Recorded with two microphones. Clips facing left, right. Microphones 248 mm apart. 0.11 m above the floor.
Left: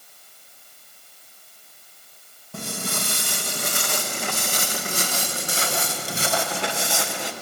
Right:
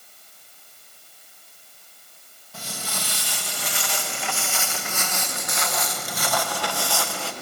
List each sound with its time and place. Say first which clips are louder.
2.5 s footsteps: left 6 dB; 60° left (ahead or behind), 4 m; by 7.3 s 20° left (ahead or behind), 4 m